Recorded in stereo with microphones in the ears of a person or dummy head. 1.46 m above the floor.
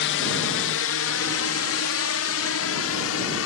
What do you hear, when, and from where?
0.0 s a drone: 60° left (ahead or behind); by 3.5 s 65° left (ahead or behind)